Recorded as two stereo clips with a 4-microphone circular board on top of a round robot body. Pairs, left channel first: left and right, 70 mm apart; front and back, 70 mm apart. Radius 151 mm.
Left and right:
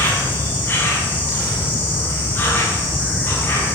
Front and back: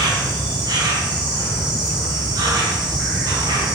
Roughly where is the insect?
Behind left.